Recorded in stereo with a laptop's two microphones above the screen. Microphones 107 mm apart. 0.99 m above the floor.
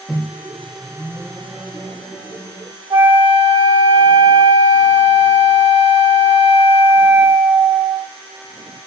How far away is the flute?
About 0.7 m.